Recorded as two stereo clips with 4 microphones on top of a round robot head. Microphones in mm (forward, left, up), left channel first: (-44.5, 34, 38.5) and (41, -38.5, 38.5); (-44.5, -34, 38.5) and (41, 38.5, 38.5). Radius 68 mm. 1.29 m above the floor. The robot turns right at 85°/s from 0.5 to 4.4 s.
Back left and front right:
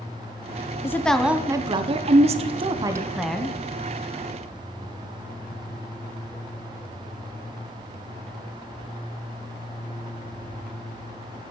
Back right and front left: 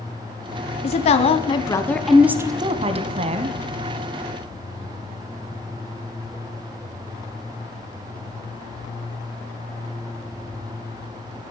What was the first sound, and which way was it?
A woman speaking, 155° right.